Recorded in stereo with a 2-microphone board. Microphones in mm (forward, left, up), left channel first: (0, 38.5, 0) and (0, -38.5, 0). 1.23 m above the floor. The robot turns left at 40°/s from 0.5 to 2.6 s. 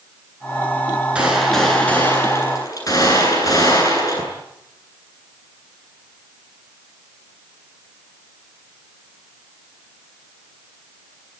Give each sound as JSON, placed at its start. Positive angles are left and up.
{"t": 1.1, "sound": "a gunshot", "azimuth_deg": -165, "distance_m": 9.5}